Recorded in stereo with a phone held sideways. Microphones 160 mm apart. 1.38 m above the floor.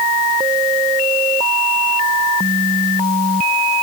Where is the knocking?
No knocking in this recording.